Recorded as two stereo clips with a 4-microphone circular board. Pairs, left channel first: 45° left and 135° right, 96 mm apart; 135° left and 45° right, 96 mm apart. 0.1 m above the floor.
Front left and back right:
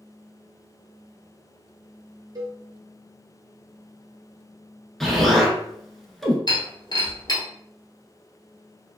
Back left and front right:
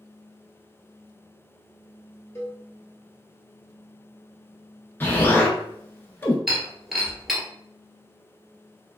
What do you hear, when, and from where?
2.4 s a cowbell: 170° right, 0.7 m
5.0 s an explosion: 130° left, 0.7 m
6.5 s breaking glass: 40° left, 1.3 m